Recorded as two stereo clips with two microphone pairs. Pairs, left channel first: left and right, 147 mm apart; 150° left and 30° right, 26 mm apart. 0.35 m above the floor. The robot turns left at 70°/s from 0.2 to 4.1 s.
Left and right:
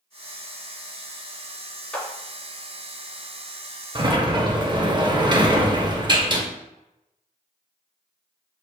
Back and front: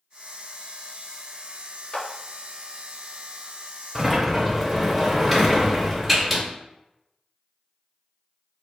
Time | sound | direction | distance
1.9 | a clap | 165° left | 0.8 m
4.0 | a sliding door | 105° right | 0.6 m